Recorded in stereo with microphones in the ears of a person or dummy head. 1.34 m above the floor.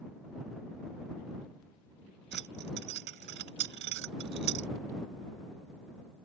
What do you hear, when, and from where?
2.3 s keys jangling: 65° right (ahead or behind)